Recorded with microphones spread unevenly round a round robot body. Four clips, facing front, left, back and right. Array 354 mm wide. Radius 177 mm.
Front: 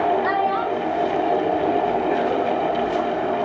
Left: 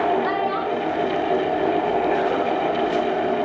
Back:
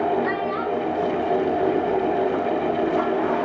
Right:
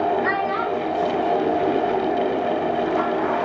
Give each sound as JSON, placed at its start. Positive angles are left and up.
{"t": 0.2, "sound": "a child speaking", "azimuth_deg": -15, "distance_m": 2.5}